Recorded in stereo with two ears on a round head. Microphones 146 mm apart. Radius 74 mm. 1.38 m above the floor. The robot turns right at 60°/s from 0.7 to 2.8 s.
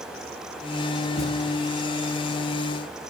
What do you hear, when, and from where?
1.2 s a thud: 55° left (ahead or behind), 3 m; by 1.4 s 45° left (ahead or behind), 3 m